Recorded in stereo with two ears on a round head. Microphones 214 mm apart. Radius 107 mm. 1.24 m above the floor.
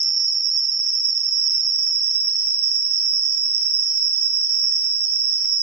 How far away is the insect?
About 4.5 m.